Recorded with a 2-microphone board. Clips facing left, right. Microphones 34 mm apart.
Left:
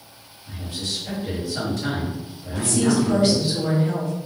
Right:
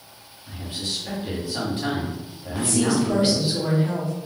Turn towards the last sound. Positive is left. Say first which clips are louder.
# left 1 dB
turn(degrees=-30)  # may be behind; listen again after turning